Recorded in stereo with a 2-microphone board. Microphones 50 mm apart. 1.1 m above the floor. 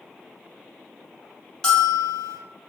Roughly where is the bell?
Centre.